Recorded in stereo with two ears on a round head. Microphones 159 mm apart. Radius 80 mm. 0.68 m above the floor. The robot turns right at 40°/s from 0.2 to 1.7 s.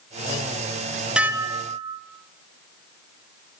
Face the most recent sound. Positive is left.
turn(degrees=-25)  # may be behind; listen again after turning